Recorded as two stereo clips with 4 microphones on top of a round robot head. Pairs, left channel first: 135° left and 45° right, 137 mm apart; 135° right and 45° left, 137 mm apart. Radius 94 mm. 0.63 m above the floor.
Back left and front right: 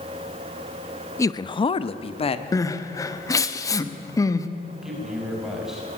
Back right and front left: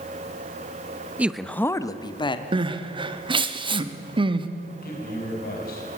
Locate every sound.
1.2 s a man speaking: 105° left, 0.7 m; by 2.4 s 175° left, 1.5 m
2.5 s crying: 80° left, 1.3 m
4.8 s a man speaking: 130° right, 5.5 m